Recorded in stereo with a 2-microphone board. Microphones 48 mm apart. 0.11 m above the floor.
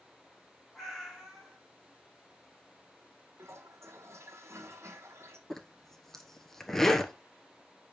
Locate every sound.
0.8 s a cat meowing: 5° left (ahead or behind), 3.5 m
3.4 s a toilet flushing: 75° right (ahead or behind), 1.1 m
5.5 s a zipper: 10° left (ahead or behind), 0.9 m